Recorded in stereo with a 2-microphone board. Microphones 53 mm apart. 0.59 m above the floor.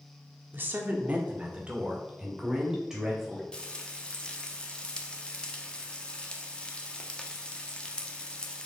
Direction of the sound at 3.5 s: 20° left (ahead or behind).